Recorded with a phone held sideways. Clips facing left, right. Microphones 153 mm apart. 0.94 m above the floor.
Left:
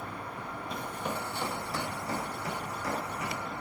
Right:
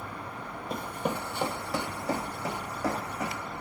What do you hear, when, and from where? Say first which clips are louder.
0.7 s running footsteps: right 5 dB; 50° right (ahead or behind), 1.4 m; by 3.4 s 75° right (ahead or behind), 3.5 m